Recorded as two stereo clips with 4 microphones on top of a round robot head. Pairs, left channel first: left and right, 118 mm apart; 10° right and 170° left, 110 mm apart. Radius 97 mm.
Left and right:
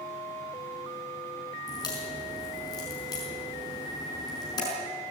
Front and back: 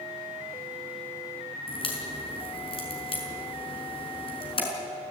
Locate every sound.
1.7 s a crack: 30° left, 5.5 m